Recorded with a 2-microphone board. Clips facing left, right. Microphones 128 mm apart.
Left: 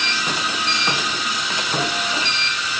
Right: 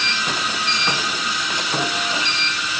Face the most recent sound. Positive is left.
No sound to turn to.